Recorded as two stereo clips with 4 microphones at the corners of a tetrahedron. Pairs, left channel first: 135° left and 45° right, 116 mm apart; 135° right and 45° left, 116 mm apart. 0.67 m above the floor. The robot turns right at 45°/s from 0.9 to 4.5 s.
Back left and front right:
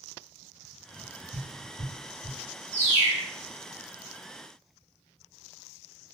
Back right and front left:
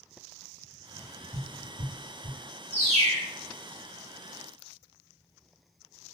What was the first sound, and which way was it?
Tapping, 30° right.